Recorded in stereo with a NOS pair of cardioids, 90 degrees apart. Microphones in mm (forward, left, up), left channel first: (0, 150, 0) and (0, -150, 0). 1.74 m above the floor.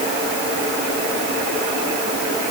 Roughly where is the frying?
I don't hear frying.